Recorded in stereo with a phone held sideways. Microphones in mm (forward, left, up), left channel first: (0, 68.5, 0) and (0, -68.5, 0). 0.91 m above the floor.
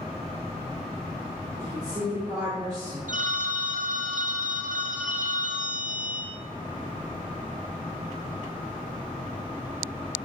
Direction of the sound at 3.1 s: 65° right (ahead or behind).